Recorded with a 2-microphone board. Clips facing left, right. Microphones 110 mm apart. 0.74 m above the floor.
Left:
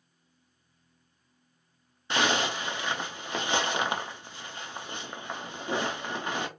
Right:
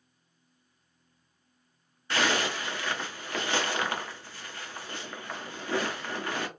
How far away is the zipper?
About 0.5 m.